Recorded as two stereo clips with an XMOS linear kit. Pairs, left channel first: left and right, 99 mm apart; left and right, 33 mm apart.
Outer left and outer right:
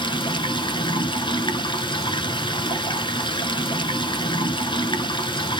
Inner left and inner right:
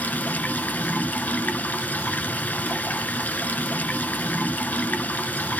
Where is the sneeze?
I don't hear a sneeze.